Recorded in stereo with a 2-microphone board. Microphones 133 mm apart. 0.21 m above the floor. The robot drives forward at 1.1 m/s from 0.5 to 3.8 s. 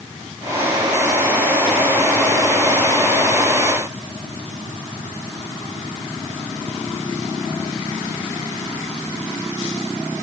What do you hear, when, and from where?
Only background noise.